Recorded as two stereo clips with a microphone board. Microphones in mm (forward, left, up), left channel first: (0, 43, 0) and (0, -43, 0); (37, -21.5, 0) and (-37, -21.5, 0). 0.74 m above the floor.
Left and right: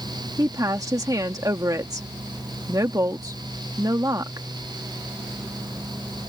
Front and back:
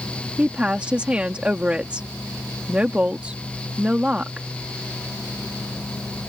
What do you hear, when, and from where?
0.4 s a woman speaking: 110° right